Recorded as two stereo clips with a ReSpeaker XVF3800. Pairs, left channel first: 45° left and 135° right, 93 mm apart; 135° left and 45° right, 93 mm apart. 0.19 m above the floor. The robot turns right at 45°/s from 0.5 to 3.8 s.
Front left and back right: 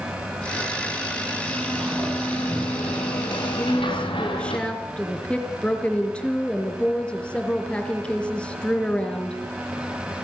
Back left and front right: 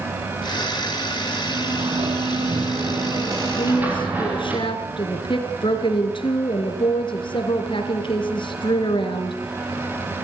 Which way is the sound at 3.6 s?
110° left.